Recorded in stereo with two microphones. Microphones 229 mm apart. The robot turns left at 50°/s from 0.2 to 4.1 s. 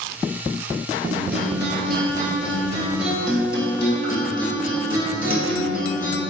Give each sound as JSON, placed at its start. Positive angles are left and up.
{"t": 1.1, "sound": "a guitar", "azimuth_deg": -75, "distance_m": 1.3}